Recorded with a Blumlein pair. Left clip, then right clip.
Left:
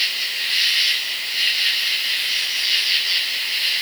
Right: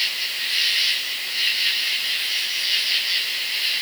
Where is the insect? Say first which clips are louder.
Left 2 dB; 5° left, 2 m.